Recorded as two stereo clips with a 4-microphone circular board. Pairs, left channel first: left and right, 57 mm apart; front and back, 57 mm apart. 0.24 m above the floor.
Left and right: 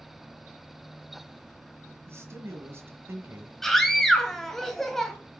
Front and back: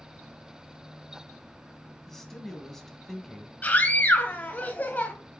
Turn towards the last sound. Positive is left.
turn(degrees=10)